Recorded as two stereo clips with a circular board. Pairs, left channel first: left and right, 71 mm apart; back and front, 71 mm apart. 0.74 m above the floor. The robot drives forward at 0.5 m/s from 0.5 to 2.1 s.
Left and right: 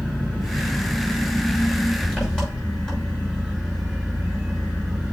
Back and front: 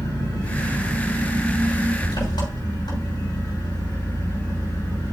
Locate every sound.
0.0 s an engine running: 170° left, 5.5 m